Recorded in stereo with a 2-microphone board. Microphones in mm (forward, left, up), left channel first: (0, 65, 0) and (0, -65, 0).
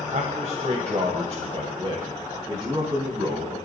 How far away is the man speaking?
About 1.9 m.